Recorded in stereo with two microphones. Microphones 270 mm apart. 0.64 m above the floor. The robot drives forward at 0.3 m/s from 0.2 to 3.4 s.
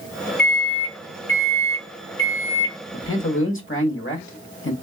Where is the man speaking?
50° left (ahead or behind), 1.0 m.